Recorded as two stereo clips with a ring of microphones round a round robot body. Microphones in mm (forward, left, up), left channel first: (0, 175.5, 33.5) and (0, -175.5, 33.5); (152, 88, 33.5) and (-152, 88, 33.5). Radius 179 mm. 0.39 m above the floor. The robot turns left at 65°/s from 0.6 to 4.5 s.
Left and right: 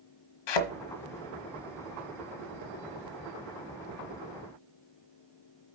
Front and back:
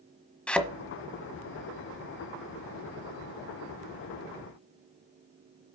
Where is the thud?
85° left, 1.4 m; by 0.7 s 80° left, 1.4 m.